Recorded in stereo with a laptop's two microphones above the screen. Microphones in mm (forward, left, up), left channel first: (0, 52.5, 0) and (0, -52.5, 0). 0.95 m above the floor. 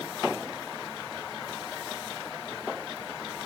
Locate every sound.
Only background noise.